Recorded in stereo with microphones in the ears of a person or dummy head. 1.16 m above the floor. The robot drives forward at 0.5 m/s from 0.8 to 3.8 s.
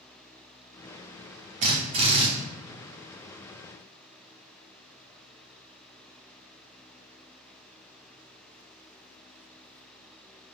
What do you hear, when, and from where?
1.6 s a drill: 35° right (ahead or behind), 0.6 m; by 2.3 s 25° right (ahead or behind), 0.8 m